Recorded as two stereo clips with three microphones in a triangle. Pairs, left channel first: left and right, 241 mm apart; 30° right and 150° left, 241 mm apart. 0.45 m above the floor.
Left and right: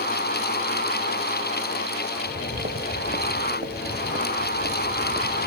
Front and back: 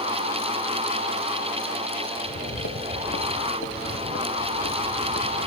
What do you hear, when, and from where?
2.1 s footsteps: 45° right